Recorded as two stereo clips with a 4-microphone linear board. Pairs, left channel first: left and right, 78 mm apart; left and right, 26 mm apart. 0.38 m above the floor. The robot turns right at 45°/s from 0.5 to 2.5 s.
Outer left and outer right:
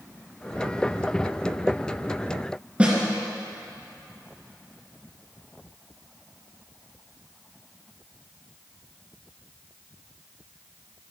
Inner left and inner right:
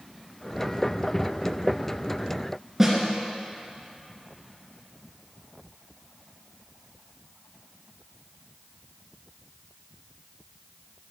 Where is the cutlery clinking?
No cutlery clinking in this recording.